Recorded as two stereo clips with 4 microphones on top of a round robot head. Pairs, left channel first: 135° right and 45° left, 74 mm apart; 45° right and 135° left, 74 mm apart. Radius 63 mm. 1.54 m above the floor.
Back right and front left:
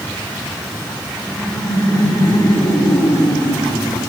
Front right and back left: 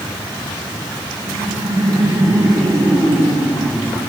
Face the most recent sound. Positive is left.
turn(degrees=-140)